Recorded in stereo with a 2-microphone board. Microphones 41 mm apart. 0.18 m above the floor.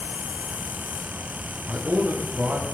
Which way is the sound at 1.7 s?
50° right (ahead or behind).